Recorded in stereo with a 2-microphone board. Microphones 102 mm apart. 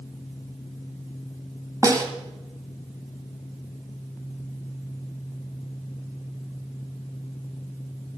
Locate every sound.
1.8 s a snare drum: 35° right (ahead or behind), 1.6 m